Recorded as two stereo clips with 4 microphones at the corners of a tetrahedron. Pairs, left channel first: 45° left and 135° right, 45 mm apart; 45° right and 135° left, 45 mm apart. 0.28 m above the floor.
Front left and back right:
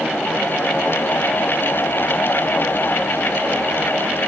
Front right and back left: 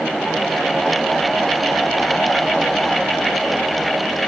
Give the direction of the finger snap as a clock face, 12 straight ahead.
No finger snap in this recording.